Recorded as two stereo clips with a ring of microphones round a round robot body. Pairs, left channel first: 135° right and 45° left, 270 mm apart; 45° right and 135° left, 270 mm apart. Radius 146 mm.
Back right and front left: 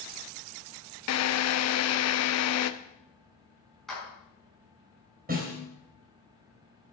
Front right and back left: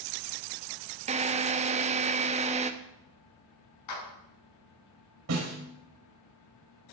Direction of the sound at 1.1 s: 160° right.